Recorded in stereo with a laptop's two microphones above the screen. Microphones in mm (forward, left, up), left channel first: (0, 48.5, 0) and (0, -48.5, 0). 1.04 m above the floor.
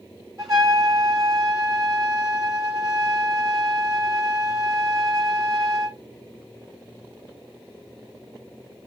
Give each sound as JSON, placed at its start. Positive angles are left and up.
{"t": 0.4, "sound": "a trumpet", "side_deg": -40, "distance_m": 4.0}